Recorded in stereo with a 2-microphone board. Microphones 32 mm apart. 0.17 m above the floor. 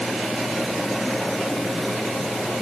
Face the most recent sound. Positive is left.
No sound to turn to.